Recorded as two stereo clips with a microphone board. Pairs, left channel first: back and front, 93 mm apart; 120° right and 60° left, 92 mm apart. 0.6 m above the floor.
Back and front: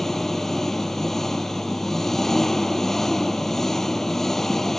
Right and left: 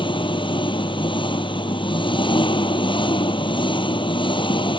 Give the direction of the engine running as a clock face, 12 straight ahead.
3 o'clock.